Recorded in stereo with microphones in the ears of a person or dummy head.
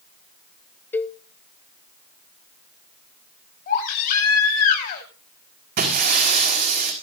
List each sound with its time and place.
0.9 s a cowbell: 10° left (ahead or behind), 0.8 m
3.7 s a baby crying: 50° left (ahead or behind), 8.5 m
5.8 s breaking glass: 55° right (ahead or behind), 5.5 m